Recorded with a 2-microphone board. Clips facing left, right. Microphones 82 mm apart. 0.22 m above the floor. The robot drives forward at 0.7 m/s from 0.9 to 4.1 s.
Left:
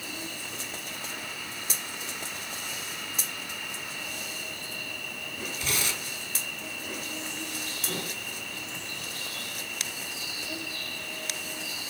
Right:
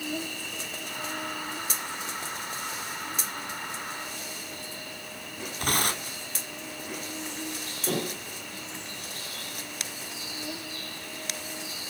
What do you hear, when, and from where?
0.0 s an insect: 60° right (ahead or behind), 2 m; by 11.9 s 30° right (ahead or behind), 4 m
5.6 s tearing paper: 50° right (ahead or behind), 1.8 m
7.9 s dishes clattering: 70° right (ahead or behind), 3 m